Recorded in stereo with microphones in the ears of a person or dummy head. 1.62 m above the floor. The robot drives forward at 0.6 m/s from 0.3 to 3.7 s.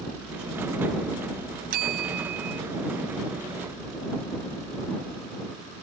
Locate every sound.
1.7 s a bell: 55° right (ahead or behind)